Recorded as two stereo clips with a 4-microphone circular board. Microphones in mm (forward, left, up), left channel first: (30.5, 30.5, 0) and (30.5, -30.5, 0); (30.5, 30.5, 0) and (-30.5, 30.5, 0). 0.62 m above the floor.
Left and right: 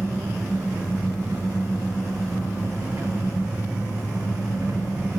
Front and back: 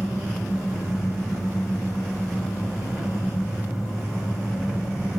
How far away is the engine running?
About 0.9 m.